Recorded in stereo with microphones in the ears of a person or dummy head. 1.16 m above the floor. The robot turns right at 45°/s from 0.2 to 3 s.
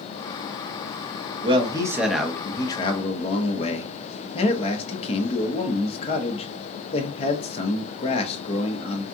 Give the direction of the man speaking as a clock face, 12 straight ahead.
1 o'clock.